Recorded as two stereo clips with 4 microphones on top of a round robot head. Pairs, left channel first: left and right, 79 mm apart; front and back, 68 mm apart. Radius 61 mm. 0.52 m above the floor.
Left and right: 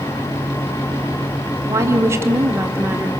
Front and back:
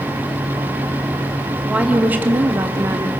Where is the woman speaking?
110° right, 1.5 m; by 3.1 s 145° right, 1.7 m.